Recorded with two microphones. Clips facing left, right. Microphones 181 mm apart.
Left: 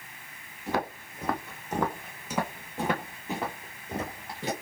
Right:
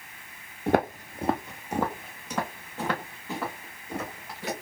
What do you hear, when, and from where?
0.7 s footsteps: 60° right (ahead or behind), 0.6 m; by 4.5 s 25° left (ahead or behind), 2 m